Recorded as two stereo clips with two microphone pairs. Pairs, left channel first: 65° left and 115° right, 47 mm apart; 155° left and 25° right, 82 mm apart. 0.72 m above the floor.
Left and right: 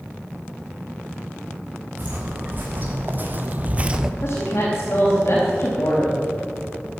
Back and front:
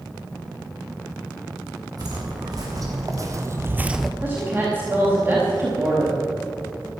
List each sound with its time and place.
2.0 s footsteps: 65° right, 3.5 m; by 4.1 s 150° right, 0.7 m
4.2 s a woman speaking: 40° left, 4 m